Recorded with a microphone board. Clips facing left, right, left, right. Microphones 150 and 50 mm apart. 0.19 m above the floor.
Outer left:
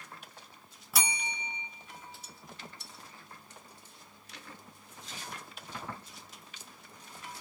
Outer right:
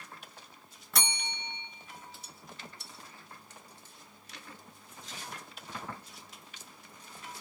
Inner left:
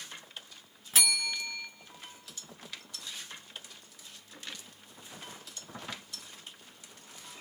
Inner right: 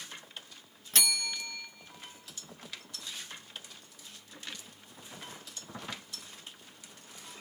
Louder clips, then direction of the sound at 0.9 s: Outer left 1 dB, inner left 2 dB; 10° left (ahead or behind).